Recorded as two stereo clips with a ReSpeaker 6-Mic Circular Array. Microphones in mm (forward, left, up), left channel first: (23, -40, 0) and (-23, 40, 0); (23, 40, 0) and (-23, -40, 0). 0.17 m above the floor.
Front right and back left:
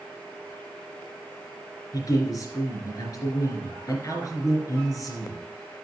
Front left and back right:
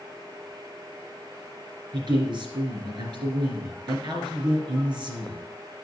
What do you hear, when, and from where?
1.9 s a man speaking: 100° right, 3 m